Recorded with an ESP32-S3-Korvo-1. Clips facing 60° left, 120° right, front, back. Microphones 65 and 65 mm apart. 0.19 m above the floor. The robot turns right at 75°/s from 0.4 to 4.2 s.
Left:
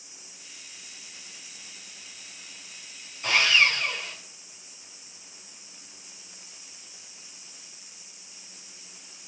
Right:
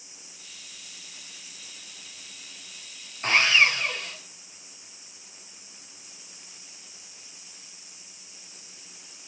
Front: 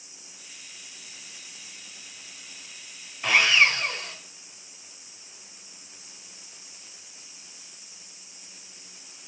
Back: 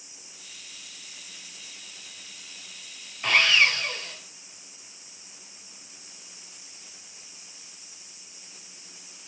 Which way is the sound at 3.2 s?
85° right.